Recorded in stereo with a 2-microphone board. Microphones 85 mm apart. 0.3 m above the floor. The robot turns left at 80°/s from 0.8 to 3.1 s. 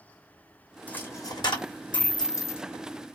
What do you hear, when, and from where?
0.9 s a dropped coin: 15° left (ahead or behind), 0.8 m; by 2.6 s 25° left (ahead or behind), 0.8 m